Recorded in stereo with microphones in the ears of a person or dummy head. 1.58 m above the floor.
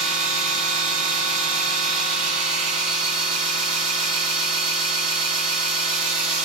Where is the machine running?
35° right (ahead or behind), 1.5 m.